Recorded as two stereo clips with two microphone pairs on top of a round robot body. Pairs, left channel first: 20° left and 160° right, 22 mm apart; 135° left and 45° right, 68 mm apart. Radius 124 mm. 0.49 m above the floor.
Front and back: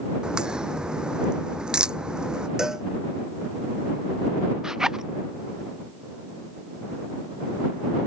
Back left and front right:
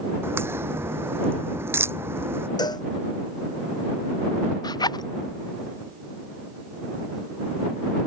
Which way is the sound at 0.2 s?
100° right.